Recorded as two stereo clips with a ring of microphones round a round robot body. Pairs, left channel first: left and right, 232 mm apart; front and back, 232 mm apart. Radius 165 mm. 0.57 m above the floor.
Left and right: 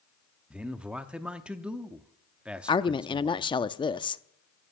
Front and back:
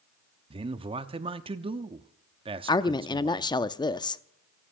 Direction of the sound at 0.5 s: 170° right.